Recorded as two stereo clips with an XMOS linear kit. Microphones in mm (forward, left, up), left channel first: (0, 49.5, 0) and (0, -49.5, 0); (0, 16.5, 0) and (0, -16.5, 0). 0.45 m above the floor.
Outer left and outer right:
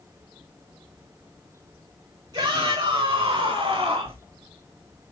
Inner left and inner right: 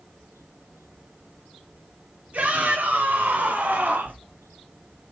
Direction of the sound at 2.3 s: 45° right (ahead or behind).